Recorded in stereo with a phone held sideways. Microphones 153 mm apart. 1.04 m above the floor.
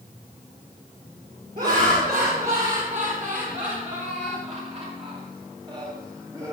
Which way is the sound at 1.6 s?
75° right (ahead or behind).